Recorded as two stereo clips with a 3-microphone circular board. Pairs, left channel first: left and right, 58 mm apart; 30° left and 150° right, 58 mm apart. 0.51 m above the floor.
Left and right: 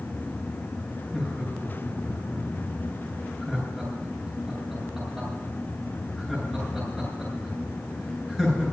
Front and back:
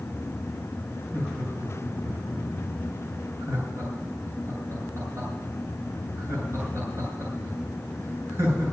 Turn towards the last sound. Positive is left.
turn(degrees=180)